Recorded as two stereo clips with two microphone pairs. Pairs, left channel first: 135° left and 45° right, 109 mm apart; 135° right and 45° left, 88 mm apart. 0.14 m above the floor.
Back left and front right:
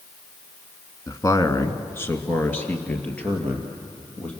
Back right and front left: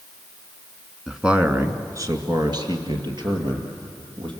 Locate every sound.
1.1 s a man speaking: 135° left, 1.5 m; by 4.3 s 55° left, 4.5 m